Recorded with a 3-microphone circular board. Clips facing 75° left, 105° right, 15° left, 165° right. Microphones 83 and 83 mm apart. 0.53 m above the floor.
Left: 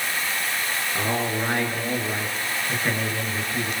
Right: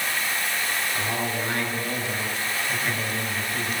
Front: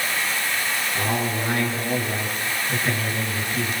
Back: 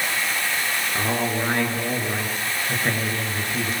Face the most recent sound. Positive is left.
turn(degrees=135)